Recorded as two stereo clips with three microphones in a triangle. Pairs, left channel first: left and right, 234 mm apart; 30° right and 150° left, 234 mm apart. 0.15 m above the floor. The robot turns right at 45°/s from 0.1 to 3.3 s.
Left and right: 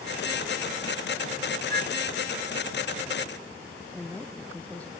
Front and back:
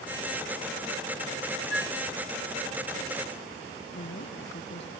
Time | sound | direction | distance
1.7 | a flute | 165° left | ?
3.9 | a woman speaking | 5° left | ?